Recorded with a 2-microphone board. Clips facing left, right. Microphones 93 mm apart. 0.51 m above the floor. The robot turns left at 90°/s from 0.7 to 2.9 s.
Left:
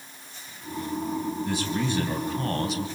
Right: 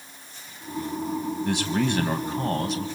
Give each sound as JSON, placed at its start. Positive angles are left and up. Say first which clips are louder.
{"t": 1.4, "sound": "a man speaking", "louder": "right 6 dB", "azimuth_deg": -70, "distance_m": 3.0}